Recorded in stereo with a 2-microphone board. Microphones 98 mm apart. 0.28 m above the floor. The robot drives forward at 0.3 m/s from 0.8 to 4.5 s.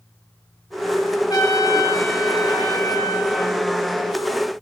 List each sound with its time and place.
1.3 s a trumpet: 40° left (ahead or behind), 0.9 m; by 3.6 s 30° left (ahead or behind), 1.2 m